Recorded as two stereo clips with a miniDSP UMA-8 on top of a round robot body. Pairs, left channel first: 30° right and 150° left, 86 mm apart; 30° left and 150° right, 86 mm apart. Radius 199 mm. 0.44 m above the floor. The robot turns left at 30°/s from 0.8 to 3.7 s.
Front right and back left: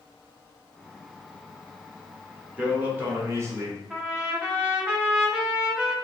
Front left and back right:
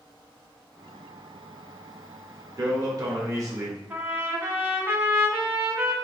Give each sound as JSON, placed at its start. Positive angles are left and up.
{"t": 2.6, "sound": "a man speaking", "azimuth_deg": -140, "distance_m": 1.4}
{"t": 3.9, "sound": "a trumpet", "azimuth_deg": -150, "distance_m": 1.2}